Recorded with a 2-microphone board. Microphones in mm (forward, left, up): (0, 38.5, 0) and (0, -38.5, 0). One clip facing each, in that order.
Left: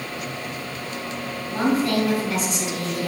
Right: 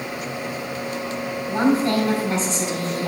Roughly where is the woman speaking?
Right.